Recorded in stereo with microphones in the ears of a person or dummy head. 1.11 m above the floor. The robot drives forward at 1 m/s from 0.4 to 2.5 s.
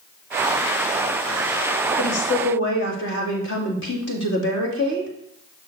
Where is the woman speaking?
80° left, 1.8 m; by 5.1 s 65° left (ahead or behind), 2.0 m.